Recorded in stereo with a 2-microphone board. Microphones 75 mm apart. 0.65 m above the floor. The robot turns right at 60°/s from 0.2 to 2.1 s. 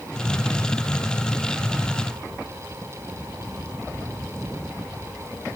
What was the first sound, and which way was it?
Only background noise.